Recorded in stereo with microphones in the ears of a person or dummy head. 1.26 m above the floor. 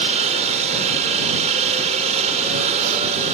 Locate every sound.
0.0 s a helicopter: 35° right (ahead or behind)